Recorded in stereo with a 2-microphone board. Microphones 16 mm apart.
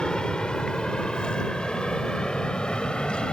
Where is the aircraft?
60° left (ahead or behind); by 3.3 s 70° left (ahead or behind).